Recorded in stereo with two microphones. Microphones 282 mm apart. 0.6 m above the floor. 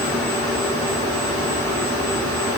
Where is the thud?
No thud in this recording.